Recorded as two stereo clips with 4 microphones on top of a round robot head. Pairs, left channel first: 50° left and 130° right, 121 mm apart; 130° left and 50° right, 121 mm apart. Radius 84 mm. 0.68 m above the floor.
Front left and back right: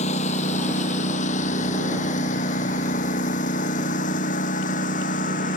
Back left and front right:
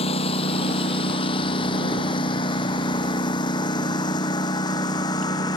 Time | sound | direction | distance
0.0 | a lawn mower | 85° left | ?